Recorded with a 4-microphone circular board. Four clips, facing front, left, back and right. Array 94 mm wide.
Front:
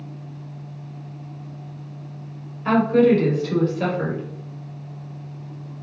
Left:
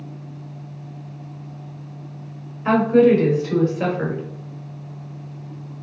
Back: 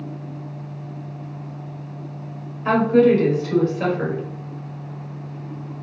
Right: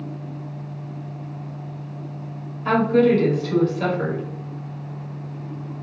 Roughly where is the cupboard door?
I don't hear a cupboard door.